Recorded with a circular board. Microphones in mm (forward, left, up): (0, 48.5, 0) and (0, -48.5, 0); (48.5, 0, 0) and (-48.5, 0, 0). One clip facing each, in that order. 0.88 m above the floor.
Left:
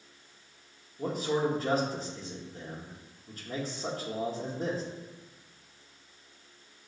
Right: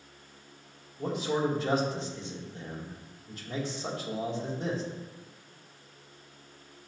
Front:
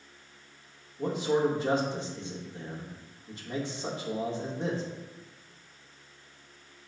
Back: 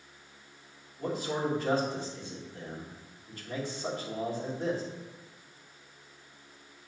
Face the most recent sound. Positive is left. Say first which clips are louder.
# even, front 5 dB
turn(degrees=65)